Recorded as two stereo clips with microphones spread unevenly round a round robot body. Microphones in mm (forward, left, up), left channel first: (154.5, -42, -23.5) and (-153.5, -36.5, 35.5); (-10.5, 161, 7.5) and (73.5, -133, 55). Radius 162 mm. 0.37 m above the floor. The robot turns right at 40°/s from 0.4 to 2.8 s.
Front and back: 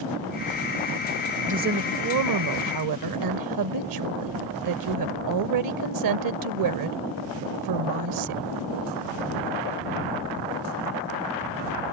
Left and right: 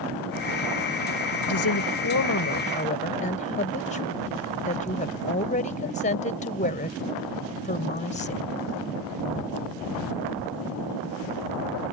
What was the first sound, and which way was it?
A woman speaking, 105° left.